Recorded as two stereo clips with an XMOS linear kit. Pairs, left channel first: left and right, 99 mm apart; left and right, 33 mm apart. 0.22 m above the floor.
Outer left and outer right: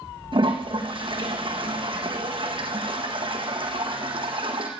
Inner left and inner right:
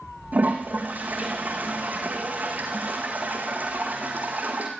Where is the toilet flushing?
60° right (ahead or behind), 3 m.